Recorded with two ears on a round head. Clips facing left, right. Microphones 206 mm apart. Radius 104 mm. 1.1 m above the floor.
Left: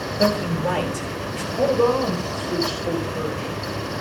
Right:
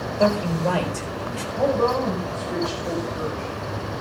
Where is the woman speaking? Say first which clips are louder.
Left 3 dB; 45° left (ahead or behind), 5.5 m.